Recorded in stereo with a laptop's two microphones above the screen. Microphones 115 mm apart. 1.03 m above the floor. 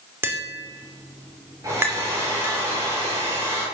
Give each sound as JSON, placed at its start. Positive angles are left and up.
{"t": 0.2, "sound": "tapping", "side_deg": -20, "distance_m": 2.5}
{"t": 1.6, "sound": "a hair dryer", "side_deg": -30, "distance_m": 9.5}